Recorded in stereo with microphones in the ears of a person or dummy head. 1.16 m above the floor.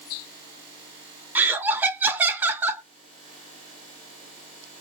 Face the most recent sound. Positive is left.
turn(degrees=-10)  # may be behind; listen again after turning